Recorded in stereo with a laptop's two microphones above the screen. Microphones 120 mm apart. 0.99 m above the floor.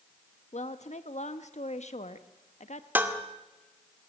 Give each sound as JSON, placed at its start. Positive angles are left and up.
{"t": 0.5, "sound": "a woman speaking", "side_deg": 75, "distance_m": 1.3}
{"t": 3.0, "sound": "dishes clattering", "side_deg": -15, "distance_m": 1.7}